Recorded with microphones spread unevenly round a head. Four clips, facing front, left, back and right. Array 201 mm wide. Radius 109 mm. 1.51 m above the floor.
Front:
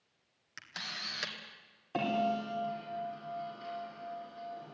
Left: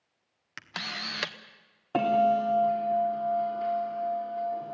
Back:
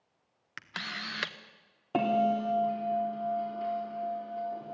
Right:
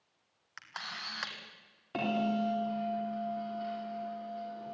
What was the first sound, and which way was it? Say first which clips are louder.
A camera shutter: left 5 dB, back 5 dB; 120° left.